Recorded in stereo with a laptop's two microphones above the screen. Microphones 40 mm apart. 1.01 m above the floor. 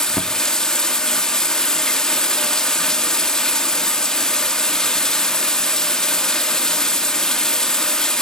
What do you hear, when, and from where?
0.0 s running water: 15° left (ahead or behind), 1.7 m